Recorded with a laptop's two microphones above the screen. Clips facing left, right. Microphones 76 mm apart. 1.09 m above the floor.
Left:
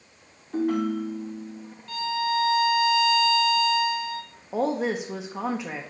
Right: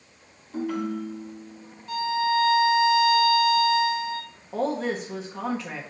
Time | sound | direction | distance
0.5 | a ringtone | 55° left (ahead or behind) | 1.3 m
1.9 | a violin | 20° right (ahead or behind) | 0.7 m
4.5 | a woman speaking | 20° left (ahead or behind) | 0.6 m